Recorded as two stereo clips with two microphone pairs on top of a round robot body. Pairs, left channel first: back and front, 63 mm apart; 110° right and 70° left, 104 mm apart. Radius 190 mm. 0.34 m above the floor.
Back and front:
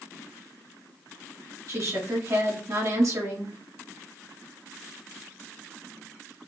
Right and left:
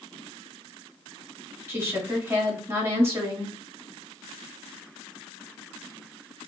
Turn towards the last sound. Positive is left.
turn(degrees=15)